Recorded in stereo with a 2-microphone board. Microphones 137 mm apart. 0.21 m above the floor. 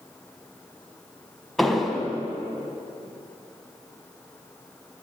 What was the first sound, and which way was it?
An explosion, centre (ahead or behind).